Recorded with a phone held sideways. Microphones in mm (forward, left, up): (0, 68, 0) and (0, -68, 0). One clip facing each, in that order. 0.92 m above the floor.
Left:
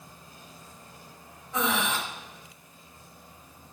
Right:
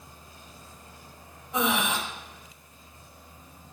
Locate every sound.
1.5 s breathing: 15° right (ahead or behind), 0.9 m